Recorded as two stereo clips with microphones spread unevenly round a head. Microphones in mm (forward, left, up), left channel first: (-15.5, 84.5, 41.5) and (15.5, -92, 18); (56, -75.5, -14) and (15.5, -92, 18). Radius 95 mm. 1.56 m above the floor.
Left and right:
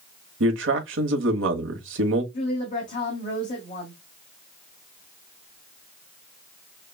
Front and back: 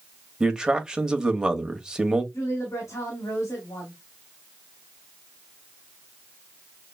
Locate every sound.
0.4 s a man speaking: 75° right, 1.2 m
2.3 s a woman speaking: 50° left, 1.7 m